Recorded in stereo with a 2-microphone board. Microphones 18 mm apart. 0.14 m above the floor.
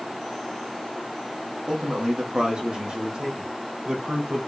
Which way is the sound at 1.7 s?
80° right.